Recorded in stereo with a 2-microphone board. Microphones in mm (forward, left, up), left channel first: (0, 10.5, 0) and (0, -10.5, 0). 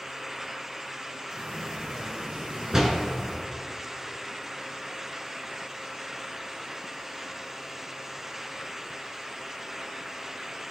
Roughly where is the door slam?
Right.